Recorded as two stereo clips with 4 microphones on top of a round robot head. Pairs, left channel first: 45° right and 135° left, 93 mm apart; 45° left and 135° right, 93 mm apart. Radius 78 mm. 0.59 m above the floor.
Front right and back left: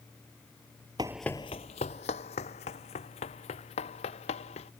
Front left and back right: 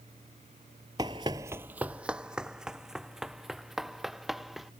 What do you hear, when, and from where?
1.0 s running footsteps: 175° left; by 4.7 s 45° right